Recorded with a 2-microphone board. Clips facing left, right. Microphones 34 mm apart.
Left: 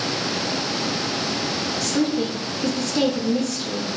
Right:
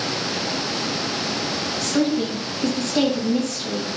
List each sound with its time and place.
1.8 s a woman speaking: 55° right (ahead or behind), 1.7 m